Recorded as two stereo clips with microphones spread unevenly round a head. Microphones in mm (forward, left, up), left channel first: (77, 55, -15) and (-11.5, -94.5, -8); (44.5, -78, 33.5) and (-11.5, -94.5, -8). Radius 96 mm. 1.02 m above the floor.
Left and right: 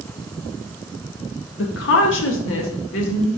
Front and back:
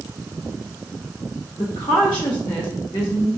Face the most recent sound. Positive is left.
turn(degrees=80)